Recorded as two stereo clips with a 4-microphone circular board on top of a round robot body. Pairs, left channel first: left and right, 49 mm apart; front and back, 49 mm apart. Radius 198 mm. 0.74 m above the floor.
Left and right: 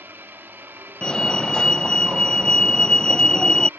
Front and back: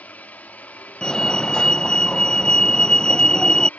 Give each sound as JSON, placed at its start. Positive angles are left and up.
{"t": 0.0, "sound": "a helicopter", "azimuth_deg": -55}
{"t": 1.0, "sound": "a fire alarm", "azimuth_deg": 45}